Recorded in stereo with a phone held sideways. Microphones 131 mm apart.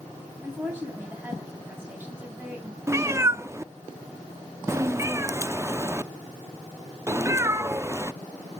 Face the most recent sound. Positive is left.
turn(degrees=-20)  # may be behind; listen again after turning